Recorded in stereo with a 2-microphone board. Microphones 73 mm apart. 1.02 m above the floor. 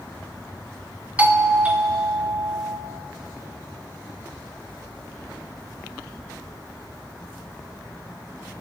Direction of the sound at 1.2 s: 20° right (ahead or behind).